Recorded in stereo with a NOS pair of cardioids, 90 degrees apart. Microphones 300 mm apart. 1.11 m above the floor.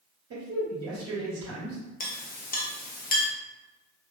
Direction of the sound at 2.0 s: 30° left.